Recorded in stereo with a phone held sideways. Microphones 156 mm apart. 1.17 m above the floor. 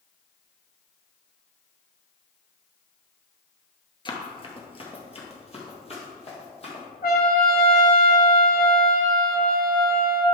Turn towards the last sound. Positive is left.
turn(degrees=70)  # may be behind; listen again after turning